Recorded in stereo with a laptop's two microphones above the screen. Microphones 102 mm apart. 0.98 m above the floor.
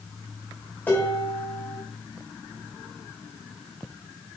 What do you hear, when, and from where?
0.9 s dishes clattering: 20° left (ahead or behind), 3 m